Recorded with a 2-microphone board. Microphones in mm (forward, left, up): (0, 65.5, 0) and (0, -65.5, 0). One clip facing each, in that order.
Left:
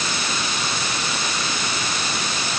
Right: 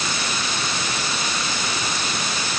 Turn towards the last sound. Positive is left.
No sound to turn to.